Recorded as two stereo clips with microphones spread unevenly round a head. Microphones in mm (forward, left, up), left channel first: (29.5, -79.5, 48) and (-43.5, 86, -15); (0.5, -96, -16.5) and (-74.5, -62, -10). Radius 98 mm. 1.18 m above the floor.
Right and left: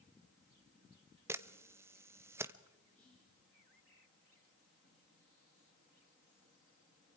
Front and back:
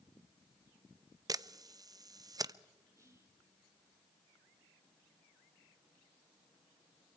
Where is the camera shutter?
165° right, 0.7 m.